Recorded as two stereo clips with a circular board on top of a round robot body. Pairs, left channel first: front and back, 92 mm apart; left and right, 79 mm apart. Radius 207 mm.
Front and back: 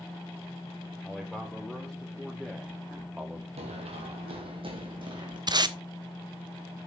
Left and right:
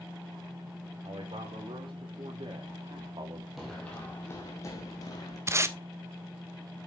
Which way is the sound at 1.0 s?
90° right.